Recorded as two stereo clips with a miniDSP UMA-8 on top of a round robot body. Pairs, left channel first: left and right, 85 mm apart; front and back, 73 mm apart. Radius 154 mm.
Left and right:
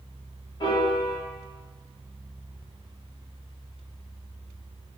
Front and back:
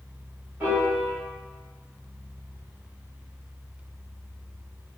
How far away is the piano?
About 1.7 m.